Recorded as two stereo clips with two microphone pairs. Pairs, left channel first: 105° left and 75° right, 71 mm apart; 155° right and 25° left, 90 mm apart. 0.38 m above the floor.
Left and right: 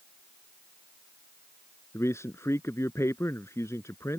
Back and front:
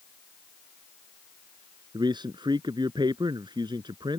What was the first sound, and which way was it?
A man speaking, 55° left.